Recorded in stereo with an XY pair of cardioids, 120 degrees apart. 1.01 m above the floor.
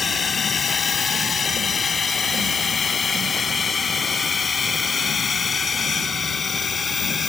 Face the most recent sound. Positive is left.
turn(degrees=25)